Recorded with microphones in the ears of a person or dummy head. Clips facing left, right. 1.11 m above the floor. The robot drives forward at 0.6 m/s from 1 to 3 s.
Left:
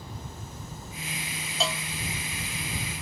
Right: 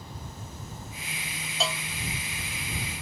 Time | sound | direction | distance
1.6 | a cowbell | 5° left (ahead or behind) | ?